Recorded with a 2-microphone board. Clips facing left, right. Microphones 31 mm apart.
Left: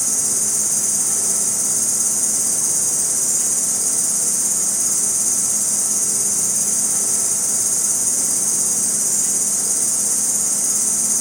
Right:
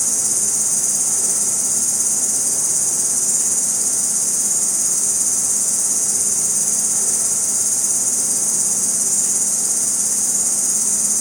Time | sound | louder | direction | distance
0.0 | an insect | even | 20° left (ahead or behind) | 1.5 m